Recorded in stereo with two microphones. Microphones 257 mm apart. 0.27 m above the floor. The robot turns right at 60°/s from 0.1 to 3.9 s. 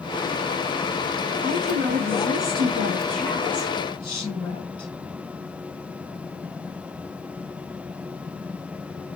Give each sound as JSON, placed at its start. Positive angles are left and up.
{"t": 1.4, "sound": "a woman speaking", "azimuth_deg": -110, "distance_m": 1.7}